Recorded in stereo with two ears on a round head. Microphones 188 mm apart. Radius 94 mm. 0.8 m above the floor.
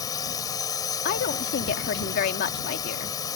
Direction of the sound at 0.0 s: 20° left (ahead or behind).